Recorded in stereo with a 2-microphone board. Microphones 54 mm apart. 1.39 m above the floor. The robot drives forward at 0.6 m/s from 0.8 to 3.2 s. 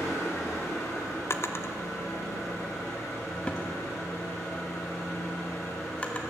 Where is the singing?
I don't hear singing.